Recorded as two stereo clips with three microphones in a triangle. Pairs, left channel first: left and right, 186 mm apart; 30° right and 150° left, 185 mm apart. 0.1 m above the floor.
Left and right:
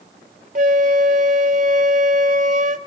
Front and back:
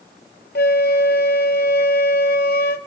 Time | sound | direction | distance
0.6 | a flute | 50° right | 0.6 m